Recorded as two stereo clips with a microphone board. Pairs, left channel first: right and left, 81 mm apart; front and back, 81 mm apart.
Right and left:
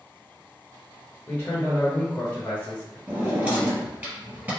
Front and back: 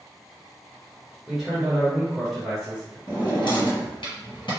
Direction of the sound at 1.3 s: 105° right.